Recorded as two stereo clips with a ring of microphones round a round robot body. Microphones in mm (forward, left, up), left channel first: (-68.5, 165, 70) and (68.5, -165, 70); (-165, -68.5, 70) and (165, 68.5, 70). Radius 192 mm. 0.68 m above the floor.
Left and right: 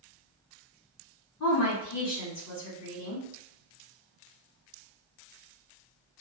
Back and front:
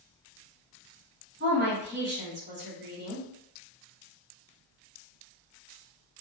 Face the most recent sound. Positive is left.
turn(degrees=80)